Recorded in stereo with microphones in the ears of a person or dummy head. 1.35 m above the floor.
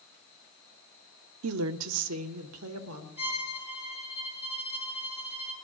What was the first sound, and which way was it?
A woman speaking, 70° right (ahead or behind).